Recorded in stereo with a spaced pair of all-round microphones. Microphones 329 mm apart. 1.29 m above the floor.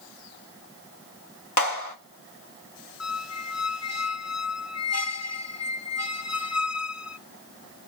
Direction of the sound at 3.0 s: 50° left (ahead or behind).